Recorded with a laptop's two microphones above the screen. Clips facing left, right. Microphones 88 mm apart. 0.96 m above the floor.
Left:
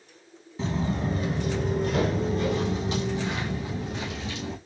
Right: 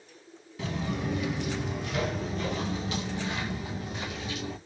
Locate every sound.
0.6 s footsteps: 25° left (ahead or behind), 1.3 m